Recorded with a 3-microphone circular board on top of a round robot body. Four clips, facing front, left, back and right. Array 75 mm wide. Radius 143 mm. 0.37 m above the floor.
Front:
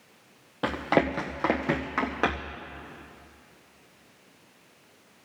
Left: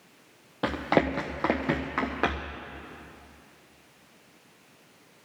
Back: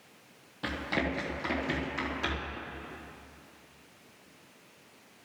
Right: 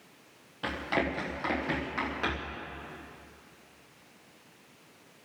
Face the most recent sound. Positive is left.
turn(degrees=40)